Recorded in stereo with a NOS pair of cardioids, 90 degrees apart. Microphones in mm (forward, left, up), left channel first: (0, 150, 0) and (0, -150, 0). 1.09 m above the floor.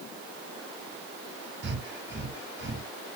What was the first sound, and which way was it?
Breathing, 40° right.